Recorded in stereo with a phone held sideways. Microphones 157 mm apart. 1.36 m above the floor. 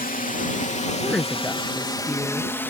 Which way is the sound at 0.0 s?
55° left (ahead or behind).